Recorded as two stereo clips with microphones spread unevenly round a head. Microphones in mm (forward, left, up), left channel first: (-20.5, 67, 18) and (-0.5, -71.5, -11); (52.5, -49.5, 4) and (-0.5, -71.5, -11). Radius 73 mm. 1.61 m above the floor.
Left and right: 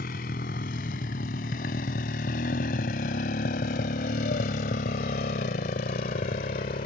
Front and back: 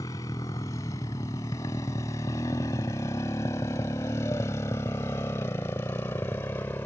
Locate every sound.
0.0 s a motorcycle: 70° left; by 6.8 s 80° left